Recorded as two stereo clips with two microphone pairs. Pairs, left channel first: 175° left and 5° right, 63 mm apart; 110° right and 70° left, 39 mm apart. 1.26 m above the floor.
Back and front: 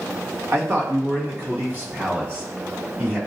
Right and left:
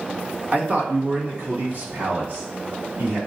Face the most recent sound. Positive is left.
turn(degrees=60)